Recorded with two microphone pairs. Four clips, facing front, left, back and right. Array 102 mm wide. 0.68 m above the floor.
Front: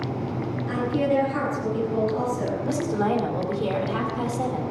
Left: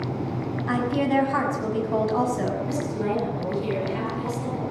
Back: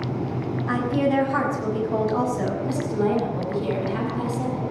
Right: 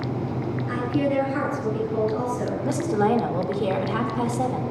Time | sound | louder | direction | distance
0.7 | a woman speaking | left 1 dB, back 1 dB | 115° left | 5.5 m
2.6 | a woman speaking | right 5 dB, even | 75° right | 3 m